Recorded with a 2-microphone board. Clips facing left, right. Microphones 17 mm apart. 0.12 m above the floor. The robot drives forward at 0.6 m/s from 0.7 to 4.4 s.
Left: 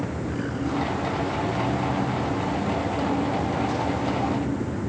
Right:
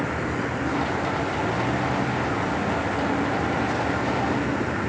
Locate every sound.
0.0 s a vehicle: 55° right (ahead or behind); by 4.9 s 65° right (ahead or behind)